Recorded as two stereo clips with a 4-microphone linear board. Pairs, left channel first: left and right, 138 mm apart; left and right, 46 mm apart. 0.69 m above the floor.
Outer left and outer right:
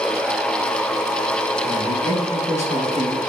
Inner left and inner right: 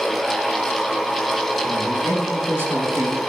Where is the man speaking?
55° right (ahead or behind), 6.5 m; by 3.2 s 60° right (ahead or behind), 6 m.